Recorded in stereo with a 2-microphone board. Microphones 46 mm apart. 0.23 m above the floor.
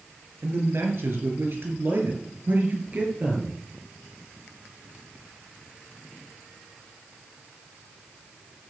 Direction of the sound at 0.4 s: 70° right (ahead or behind).